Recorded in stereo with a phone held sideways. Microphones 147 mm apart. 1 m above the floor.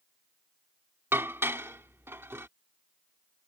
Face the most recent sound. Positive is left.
turn(degrees=-15)  # may be behind; listen again after turning